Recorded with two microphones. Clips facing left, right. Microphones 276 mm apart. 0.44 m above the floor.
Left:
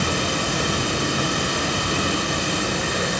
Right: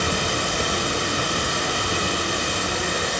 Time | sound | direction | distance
0.0 | running water | 65° left (ahead or behind) | 1.1 m